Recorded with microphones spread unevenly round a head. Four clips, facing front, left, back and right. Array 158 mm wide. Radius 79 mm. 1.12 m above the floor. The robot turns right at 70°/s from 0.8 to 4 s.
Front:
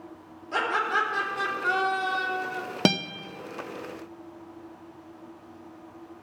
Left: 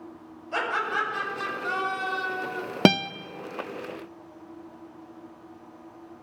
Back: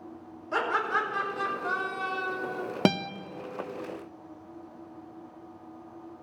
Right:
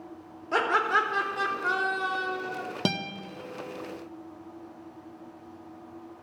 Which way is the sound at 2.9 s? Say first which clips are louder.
Left 11 dB, even; 75° left.